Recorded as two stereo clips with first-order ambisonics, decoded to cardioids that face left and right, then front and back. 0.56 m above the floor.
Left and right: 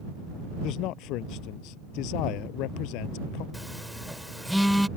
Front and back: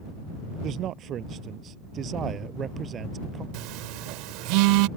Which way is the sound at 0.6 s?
125° left.